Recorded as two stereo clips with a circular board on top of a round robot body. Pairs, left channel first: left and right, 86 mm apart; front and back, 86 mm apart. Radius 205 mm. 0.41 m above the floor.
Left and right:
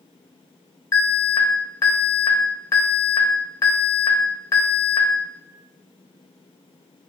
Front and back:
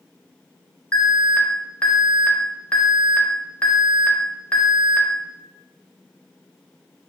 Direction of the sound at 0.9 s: 65° left.